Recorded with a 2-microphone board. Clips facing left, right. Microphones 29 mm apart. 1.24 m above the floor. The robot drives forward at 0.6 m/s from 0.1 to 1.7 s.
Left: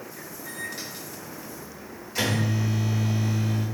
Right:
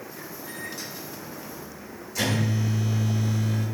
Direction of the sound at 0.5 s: 40° left (ahead or behind).